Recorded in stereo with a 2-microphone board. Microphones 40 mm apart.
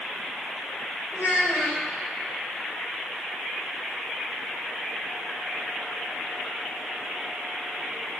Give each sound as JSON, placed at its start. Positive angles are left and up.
{"t": 1.1, "sound": "a child speaking", "side_deg": 80, "distance_m": 4.5}